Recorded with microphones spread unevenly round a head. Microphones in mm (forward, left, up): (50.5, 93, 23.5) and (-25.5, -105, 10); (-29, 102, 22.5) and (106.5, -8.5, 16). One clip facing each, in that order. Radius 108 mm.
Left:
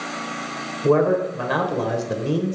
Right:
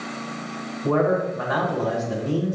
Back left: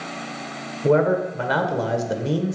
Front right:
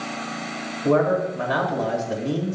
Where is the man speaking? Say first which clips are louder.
Left 3 dB, back left 1 dB; 115° left, 1.2 m.